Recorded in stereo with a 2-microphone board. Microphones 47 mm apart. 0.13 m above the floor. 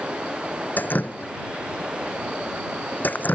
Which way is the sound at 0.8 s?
40° left (ahead or behind).